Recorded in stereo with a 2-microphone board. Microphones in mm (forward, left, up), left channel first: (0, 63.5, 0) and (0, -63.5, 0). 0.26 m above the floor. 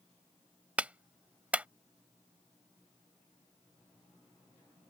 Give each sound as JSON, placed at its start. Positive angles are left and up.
{"t": 0.8, "sound": "a clap", "side_deg": -10}